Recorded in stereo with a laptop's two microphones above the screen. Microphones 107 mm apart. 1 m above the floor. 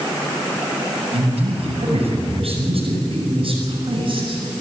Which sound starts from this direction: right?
A man speaking, at 1.1 s.